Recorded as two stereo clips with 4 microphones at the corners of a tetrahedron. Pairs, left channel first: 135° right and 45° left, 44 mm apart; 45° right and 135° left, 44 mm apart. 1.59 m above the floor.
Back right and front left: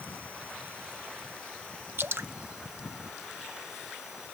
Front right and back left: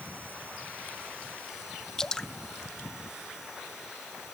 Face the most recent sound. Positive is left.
turn(degrees=30)